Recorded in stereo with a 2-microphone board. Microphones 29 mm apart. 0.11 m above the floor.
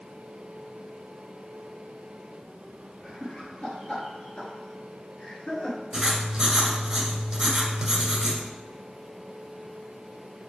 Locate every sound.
3.0 s laughter: 40° left (ahead or behind), 2 m; by 5.8 s 30° left (ahead or behind), 1.7 m
5.9 s writing: 20° right (ahead or behind), 1.7 m